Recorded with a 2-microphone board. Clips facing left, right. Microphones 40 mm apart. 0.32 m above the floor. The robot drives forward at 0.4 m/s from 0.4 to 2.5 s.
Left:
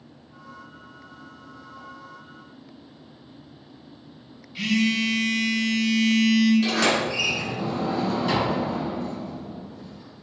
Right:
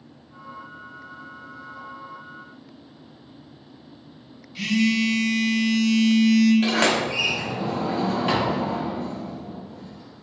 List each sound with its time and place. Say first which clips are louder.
4.5 s a phone buzzing: right 1 dB; 5° left (ahead or behind), 0.9 m
6.6 s a sliding door: right 1 dB; 50° right (ahead or behind), 1.6 m